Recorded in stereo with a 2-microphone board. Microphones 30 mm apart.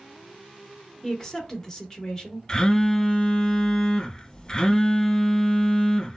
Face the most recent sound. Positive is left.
turn(degrees=25)  # may be behind; listen again after turning